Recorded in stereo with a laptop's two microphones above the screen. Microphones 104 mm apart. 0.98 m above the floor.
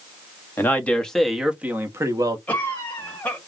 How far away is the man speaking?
About 1.3 m.